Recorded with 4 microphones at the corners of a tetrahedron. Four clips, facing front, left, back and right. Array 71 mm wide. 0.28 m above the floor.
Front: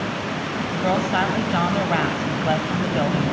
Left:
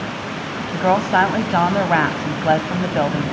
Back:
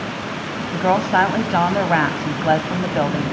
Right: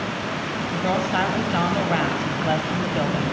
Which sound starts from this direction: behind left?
A woman speaking, at 0.7 s.